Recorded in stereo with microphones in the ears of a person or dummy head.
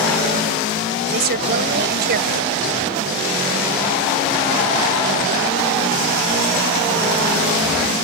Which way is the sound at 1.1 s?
50° right (ahead or behind).